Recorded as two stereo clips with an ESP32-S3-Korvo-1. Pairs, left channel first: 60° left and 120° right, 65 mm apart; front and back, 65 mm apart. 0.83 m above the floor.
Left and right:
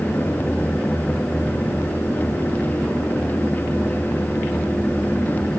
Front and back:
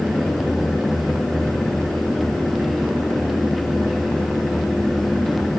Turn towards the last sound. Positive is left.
No sound to turn to.